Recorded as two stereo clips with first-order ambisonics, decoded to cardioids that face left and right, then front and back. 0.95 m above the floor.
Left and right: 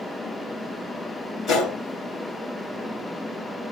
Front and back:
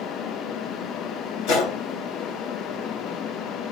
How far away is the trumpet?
No trumpet in this recording.